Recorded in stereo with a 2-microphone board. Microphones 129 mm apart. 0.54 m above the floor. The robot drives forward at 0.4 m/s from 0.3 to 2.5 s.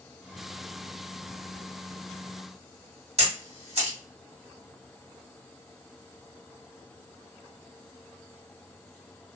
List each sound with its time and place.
3.2 s a camera shutter: 55° right (ahead or behind), 1.2 m